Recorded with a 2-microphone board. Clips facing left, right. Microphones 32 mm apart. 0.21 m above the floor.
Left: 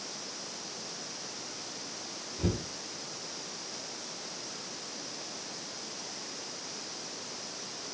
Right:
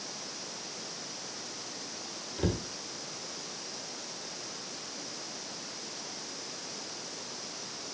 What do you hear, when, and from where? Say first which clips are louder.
2.4 s a cupboard door: right 1 dB; 60° right (ahead or behind), 4.5 m